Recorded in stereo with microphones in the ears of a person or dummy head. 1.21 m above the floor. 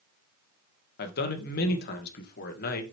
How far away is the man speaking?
About 1.5 m.